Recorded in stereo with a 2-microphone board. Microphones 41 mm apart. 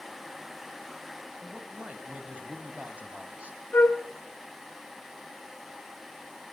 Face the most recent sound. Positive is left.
turn(degrees=75)  # may be behind; listen again after turning